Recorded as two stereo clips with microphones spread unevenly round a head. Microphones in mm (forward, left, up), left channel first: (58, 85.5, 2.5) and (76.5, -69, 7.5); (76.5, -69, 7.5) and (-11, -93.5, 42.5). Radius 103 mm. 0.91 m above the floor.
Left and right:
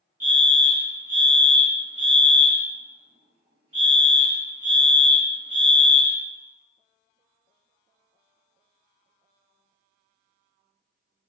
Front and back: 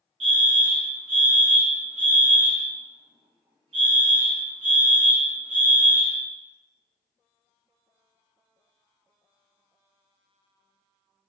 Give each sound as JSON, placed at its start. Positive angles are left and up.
{"t": 0.2, "sound": "a fire alarm", "azimuth_deg": -155, "distance_m": 1.8}